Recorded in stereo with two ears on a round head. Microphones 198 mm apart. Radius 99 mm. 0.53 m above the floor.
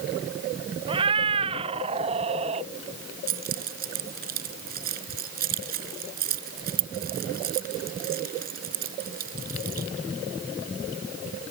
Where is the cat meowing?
25° right (ahead or behind); by 2.7 s 30° right (ahead or behind).